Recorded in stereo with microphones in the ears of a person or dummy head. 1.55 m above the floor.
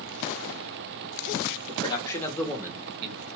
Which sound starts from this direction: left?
A man speaking, at 1.7 s.